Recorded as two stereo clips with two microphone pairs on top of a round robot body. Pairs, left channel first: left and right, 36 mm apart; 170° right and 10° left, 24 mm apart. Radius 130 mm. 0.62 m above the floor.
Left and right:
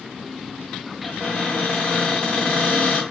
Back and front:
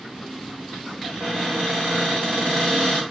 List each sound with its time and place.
1.0 s a cupboard door: 25° left, 1.7 m